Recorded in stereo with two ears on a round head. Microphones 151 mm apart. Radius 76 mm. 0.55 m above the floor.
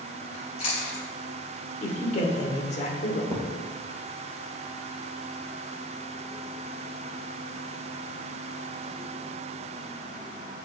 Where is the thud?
20° left (ahead or behind), 3 m.